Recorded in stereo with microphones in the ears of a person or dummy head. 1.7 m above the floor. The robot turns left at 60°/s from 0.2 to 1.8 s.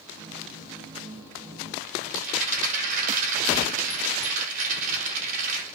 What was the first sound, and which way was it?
A rattle, 40° right (ahead or behind).